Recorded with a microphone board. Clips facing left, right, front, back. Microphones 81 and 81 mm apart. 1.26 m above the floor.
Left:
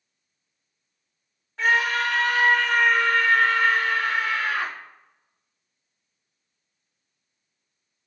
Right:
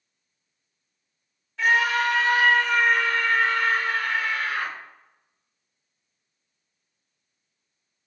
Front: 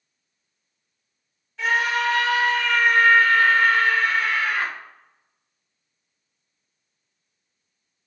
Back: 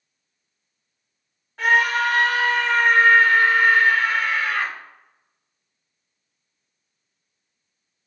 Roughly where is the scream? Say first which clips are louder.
Right 1 dB, back 3 dB; behind left.